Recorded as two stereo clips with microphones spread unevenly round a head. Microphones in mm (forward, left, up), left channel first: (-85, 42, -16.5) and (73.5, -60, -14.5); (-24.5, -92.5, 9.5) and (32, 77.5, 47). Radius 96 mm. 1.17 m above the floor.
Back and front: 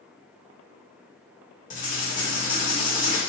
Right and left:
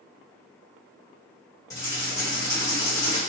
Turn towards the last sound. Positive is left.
turn(degrees=170)